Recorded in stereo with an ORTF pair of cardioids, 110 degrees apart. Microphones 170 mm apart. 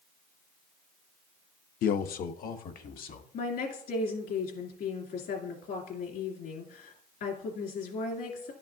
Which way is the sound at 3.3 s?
65° left.